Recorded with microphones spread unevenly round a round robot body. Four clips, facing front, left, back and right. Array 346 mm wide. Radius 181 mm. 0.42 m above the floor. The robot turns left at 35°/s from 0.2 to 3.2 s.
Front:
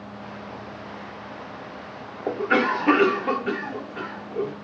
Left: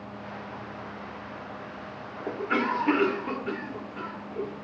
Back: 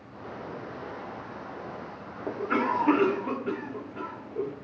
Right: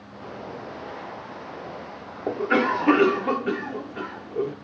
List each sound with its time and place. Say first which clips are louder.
2.3 s a cough: right 5 dB, front 5 dB; 45° right, 1.0 m; by 4.5 s 80° right, 1.0 m